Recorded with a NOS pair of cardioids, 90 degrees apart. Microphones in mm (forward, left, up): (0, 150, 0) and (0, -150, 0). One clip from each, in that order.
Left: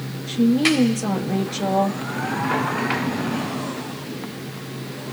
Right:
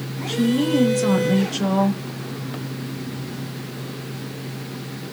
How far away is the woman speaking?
About 2.5 m.